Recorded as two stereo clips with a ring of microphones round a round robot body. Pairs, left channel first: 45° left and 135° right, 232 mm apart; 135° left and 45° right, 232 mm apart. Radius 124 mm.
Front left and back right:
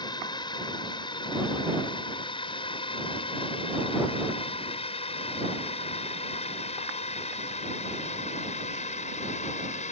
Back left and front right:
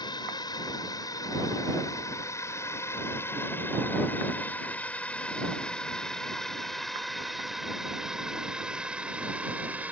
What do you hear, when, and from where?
0.0 s a drone: 90° left; by 9.9 s 30° left